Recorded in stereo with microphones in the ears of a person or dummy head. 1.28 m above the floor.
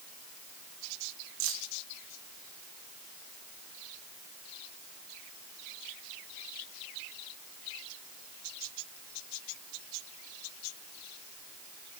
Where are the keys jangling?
70° right (ahead or behind), 0.7 m.